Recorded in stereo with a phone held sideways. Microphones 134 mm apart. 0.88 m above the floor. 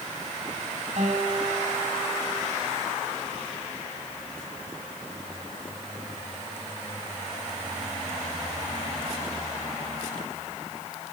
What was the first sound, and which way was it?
A guitar, 70° right (ahead or behind).